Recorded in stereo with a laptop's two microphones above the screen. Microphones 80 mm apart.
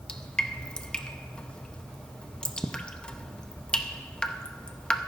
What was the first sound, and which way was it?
Dripping, 10° left (ahead or behind).